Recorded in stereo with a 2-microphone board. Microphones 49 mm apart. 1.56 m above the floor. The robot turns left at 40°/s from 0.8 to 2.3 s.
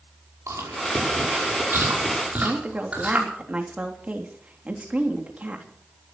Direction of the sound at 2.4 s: 30° right (ahead or behind).